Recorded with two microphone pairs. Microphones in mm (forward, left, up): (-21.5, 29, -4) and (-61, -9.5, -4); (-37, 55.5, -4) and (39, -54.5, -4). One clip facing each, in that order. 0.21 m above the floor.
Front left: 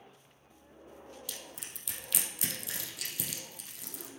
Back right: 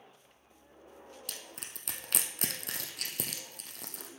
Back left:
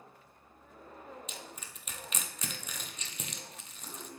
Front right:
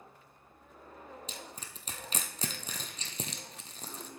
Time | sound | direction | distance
1.3 | crushing | 110° right | 1.1 m